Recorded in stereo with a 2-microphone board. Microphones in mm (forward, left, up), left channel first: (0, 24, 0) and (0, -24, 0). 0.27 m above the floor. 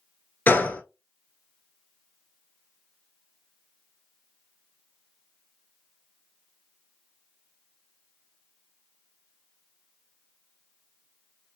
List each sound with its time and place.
0.5 s a gunshot: 40° left (ahead or behind), 0.7 m